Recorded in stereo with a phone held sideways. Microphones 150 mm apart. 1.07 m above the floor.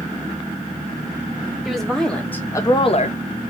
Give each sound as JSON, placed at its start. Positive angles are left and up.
{"t": 1.6, "sound": "a woman speaking", "side_deg": 0, "distance_m": 2.5}